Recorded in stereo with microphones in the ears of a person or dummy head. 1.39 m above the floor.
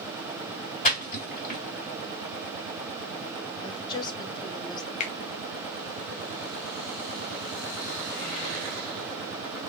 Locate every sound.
0.8 s a splash: 50° left (ahead or behind), 2 m
3.6 s a woman speaking: 25° left (ahead or behind), 0.8 m
5.0 s a finger snap: 30° left (ahead or behind), 0.6 m